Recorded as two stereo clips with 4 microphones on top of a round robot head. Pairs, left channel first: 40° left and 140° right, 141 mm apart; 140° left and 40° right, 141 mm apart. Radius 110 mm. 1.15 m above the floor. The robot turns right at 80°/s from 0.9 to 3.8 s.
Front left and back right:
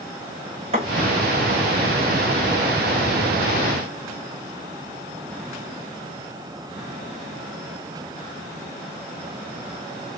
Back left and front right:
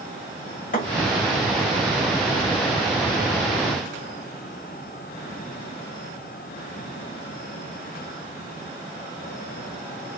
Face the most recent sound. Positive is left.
turn(degrees=45)